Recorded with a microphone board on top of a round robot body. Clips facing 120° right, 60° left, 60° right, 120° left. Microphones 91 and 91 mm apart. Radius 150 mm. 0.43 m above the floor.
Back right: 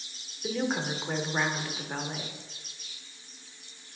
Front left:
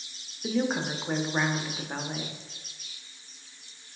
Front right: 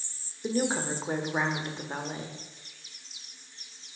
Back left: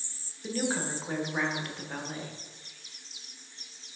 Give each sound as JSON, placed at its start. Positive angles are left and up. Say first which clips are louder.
{"t": 0.4, "sound": "a woman speaking", "louder": "front left 2 dB, front right 3 dB", "azimuth_deg": -20, "distance_m": 1.0}